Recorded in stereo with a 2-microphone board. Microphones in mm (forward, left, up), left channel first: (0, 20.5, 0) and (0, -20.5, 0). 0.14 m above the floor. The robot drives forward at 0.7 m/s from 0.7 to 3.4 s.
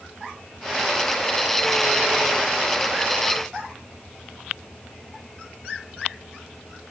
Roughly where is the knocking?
No knocking in this recording.